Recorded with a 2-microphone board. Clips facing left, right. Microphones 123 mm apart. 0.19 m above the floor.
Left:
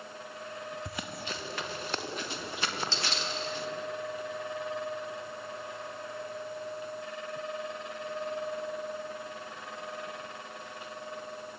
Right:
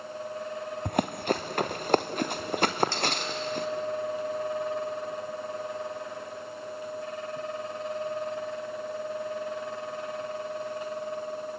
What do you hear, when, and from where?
0.8 s running footsteps: 55° right (ahead or behind), 1.0 m